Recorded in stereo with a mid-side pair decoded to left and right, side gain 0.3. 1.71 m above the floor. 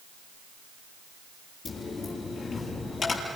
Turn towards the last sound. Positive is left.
turn(degrees=65)